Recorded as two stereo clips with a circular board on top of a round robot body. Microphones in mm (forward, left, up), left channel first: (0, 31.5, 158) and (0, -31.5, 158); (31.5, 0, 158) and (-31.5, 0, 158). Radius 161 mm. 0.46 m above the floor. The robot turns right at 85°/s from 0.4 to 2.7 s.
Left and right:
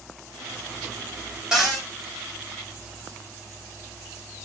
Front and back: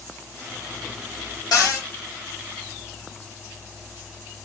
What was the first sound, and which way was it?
A cupboard door, 10° right.